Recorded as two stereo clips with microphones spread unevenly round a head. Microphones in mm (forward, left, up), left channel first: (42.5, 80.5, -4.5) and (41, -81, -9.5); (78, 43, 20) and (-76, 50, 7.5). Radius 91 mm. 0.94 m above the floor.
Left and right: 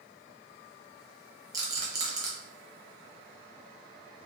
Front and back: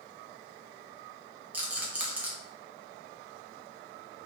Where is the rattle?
125° right, 0.5 m.